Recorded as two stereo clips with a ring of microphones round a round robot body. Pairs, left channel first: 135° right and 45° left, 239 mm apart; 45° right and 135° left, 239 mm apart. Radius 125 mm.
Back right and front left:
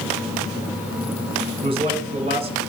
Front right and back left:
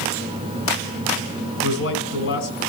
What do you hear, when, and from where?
1.6 s a man speaking: 20° right, 2.5 m